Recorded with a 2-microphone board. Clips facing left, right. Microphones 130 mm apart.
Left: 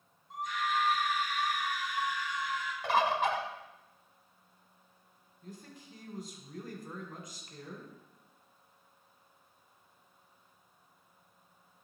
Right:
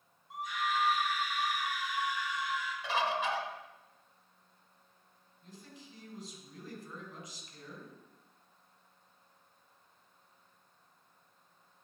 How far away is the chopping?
I don't hear chopping.